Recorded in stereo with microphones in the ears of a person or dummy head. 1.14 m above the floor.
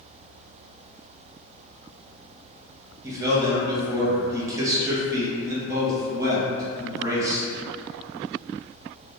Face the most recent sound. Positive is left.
turn(degrees=-20)  # may be behind; listen again after turning